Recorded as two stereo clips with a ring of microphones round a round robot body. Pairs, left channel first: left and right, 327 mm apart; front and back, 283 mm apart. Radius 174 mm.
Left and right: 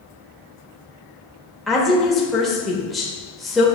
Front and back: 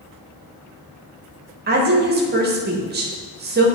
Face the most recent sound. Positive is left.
turn(degrees=180)